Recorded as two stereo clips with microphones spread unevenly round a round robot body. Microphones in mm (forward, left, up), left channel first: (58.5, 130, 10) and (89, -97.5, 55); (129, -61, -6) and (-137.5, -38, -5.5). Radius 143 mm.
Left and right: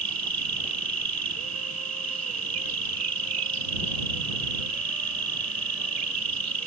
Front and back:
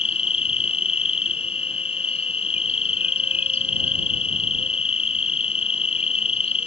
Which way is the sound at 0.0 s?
70° right.